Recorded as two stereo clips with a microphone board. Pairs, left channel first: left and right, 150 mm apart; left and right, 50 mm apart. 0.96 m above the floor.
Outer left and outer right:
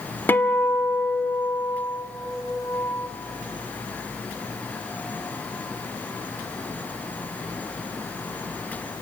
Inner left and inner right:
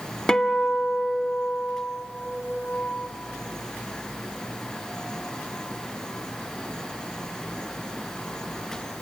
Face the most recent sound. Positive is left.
turn(degrees=15)  # may be behind; listen again after turning